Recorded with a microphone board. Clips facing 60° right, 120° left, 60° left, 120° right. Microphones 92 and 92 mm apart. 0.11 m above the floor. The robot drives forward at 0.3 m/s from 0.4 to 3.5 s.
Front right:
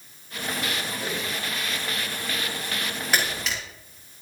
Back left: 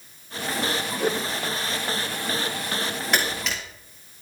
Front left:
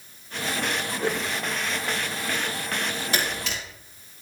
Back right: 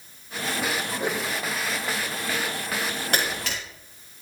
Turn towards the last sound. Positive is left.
turn(degrees=-150)